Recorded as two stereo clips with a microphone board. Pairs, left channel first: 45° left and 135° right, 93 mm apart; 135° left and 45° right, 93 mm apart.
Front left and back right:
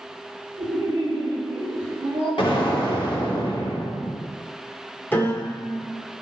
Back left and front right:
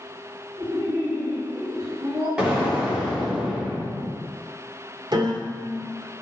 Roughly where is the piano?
Ahead.